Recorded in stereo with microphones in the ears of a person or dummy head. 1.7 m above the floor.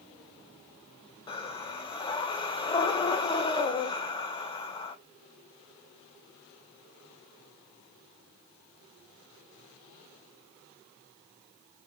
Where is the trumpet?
I don't hear a trumpet.